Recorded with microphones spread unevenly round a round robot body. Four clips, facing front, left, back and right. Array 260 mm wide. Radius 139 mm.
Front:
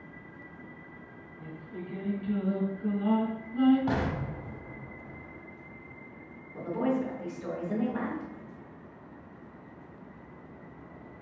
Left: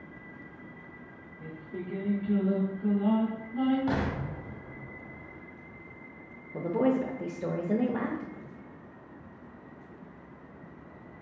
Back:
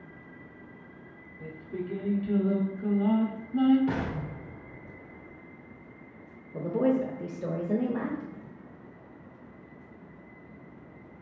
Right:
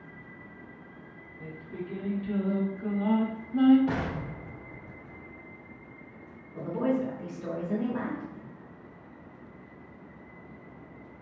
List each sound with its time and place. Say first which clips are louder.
1.4 s singing: even, back 5 dB; 150° right, 0.6 m
3.9 s an explosion: left 1 dB, front 1 dB; 25° left, 0.7 m
6.5 s a woman speaking: left 2 dB, back 3 dB; 125° left, 0.6 m